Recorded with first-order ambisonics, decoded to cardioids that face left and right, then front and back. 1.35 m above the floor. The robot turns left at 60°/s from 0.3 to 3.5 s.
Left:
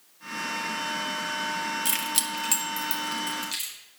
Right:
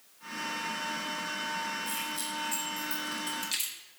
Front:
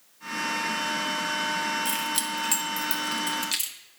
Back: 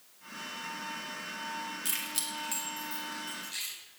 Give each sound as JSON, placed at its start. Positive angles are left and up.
{"t": 1.9, "sound": "keys jangling", "azimuth_deg": 95, "distance_m": 1.2}